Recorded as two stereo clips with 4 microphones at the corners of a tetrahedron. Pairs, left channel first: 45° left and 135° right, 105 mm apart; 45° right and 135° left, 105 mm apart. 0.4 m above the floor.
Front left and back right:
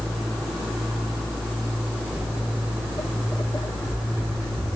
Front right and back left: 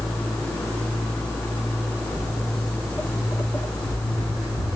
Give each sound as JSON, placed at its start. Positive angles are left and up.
{"t": 2.1, "sound": "footsteps", "azimuth_deg": 60, "distance_m": 0.8}